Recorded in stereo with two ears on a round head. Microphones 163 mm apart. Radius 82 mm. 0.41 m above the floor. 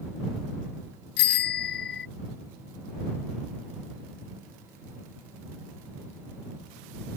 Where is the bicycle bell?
65° left (ahead or behind).